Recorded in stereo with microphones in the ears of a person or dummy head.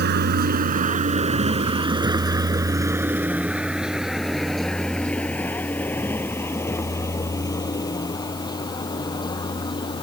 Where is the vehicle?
55° right (ahead or behind); by 10.0 s 30° left (ahead or behind).